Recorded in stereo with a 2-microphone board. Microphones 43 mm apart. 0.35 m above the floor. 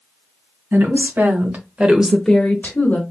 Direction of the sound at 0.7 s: 65° right (ahead or behind).